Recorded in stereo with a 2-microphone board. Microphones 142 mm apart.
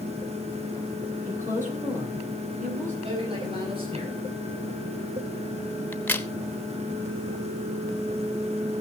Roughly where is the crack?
Centre.